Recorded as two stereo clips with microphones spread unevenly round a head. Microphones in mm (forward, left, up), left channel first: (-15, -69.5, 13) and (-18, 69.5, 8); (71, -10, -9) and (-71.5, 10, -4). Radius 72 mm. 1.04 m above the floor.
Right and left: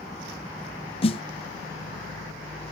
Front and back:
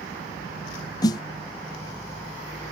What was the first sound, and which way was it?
A snare drum, 60° right.